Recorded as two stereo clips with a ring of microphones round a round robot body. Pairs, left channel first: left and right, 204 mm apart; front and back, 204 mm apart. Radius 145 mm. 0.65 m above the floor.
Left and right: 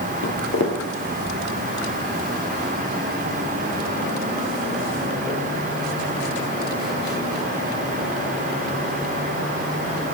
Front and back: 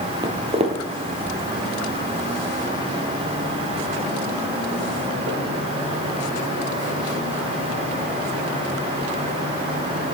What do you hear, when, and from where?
0.2 s footsteps: 110° left, 1.1 m; by 7.5 s straight behind, 4 m